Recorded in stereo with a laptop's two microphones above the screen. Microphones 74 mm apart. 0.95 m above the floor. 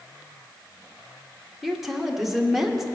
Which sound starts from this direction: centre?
A woman speaking, at 1.6 s.